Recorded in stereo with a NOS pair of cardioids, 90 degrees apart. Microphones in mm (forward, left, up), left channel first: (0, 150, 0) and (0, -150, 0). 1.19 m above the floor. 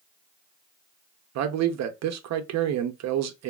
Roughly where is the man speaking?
Right.